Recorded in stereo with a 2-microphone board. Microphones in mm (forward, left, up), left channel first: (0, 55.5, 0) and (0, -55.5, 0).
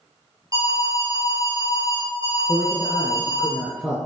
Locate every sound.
0.5 s an alarm: 35° right (ahead or behind), 3 m
2.5 s a man speaking: 5° right (ahead or behind), 2 m